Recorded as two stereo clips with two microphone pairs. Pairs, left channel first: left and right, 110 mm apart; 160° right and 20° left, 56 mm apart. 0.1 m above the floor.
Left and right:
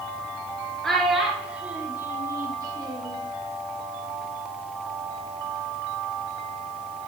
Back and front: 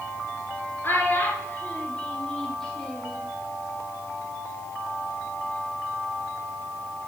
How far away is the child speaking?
About 1.5 m.